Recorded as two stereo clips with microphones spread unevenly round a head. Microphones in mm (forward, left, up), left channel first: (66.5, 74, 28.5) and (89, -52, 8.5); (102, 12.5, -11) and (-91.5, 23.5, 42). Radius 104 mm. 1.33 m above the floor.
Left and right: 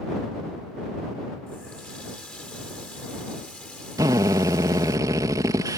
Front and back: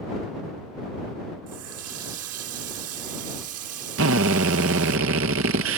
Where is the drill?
155° right.